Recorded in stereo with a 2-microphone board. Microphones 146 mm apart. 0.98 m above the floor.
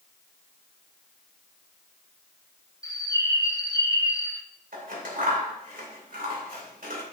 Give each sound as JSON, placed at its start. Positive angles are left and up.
{"t": 2.8, "sound": "a bird", "side_deg": 25, "distance_m": 1.1}
{"t": 4.7, "sound": "scissors", "side_deg": -80, "distance_m": 2.5}